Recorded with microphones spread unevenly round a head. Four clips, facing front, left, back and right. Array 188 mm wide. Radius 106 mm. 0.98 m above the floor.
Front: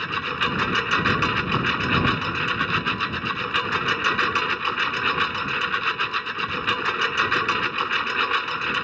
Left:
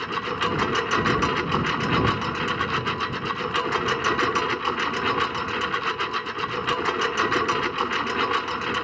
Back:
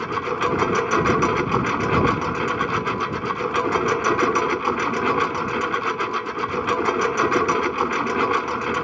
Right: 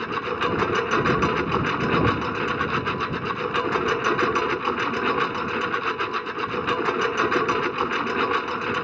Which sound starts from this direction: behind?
A lawn mower, at 0.0 s.